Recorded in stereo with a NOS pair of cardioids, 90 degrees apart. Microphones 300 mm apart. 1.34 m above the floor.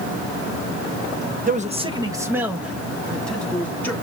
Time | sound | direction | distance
1.5 | a man speaking | 30° right | 1.0 m